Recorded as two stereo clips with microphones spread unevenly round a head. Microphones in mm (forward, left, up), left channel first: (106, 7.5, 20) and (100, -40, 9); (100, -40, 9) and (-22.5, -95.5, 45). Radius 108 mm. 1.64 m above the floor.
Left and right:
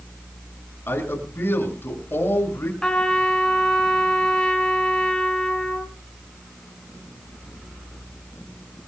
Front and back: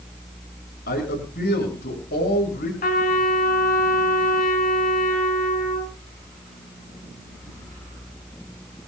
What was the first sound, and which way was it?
A man speaking, 50° left.